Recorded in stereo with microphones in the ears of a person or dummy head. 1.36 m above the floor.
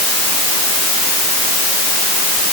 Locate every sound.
Only background noise.